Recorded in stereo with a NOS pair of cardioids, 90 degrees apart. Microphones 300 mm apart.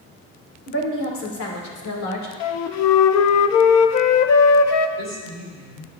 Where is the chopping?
I don't hear chopping.